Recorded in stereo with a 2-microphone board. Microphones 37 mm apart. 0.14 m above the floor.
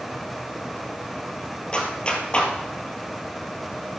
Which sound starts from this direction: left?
A clap, at 1.7 s.